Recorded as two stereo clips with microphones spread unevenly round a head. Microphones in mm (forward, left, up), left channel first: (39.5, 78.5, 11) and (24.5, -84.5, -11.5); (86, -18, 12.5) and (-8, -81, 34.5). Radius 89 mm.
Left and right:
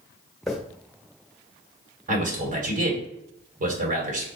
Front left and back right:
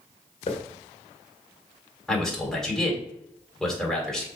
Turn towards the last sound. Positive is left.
turn(degrees=-55)